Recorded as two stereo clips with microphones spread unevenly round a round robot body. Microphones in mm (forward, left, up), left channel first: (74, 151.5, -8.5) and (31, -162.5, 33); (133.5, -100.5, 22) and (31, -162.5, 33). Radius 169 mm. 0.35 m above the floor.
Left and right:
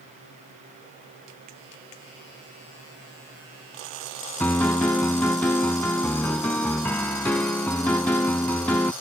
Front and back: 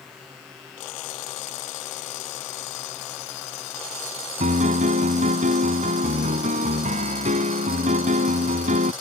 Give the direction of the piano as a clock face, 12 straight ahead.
6 o'clock.